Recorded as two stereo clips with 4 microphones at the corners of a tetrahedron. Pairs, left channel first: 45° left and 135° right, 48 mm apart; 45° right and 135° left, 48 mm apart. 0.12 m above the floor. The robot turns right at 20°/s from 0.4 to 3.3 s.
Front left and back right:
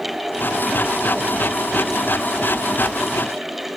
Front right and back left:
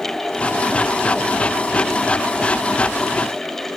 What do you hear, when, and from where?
Only background noise.